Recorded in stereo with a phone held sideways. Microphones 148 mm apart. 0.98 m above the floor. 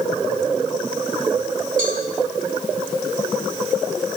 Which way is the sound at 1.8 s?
70° right (ahead or behind).